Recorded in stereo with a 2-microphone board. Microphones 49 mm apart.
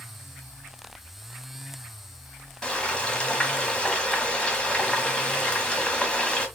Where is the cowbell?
I don't hear a cowbell.